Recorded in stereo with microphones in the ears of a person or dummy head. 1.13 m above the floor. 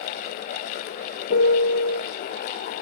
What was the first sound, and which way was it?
A piano, 50° left (ahead or behind).